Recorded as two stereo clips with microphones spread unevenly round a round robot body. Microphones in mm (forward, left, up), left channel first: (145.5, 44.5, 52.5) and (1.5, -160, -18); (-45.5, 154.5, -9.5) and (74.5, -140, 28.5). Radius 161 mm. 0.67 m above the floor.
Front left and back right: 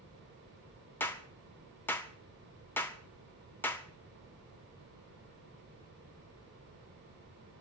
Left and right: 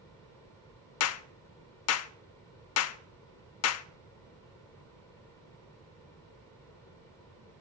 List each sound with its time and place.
1.0 s a clap: 145° left, 0.5 m